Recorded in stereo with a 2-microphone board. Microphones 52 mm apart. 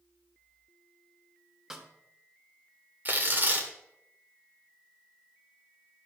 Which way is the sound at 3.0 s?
35° right (ahead or behind).